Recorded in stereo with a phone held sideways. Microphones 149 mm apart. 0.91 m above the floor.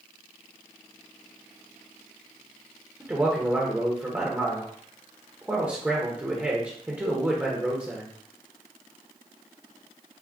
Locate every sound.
3.0 s a man speaking: 10° right (ahead or behind), 0.7 m